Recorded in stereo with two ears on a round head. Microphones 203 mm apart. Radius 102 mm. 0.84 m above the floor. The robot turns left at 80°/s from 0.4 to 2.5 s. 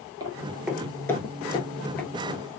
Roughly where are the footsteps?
Centre.